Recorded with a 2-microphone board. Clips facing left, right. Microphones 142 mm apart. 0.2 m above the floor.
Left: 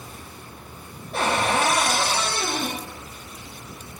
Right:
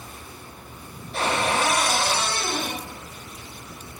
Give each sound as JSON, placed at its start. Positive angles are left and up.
{"t": 1.1, "sound": "a cupboard door", "side_deg": 55, "distance_m": 4.0}